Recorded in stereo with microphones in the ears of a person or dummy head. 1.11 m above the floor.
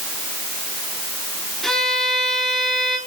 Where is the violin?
Centre (ahead or behind), 3 m.